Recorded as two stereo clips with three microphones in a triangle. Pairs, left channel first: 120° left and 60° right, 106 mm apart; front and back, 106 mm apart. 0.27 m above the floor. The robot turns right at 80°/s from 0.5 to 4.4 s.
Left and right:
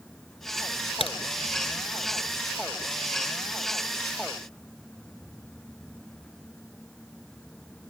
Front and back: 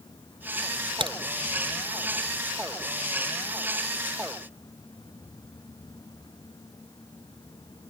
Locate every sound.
1.0 s a crack: 140° left; by 1.2 s 155° left